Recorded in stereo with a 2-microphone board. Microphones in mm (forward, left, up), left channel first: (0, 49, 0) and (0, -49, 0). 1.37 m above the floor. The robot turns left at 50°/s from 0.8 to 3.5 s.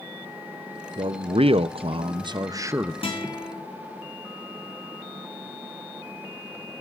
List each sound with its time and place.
1.0 s a man speaking: 60° right, 0.6 m; by 2.9 s 160° right, 0.6 m
3.0 s a guitar: 75° left (ahead or behind), 4 m; by 3.5 s 60° left (ahead or behind), 4 m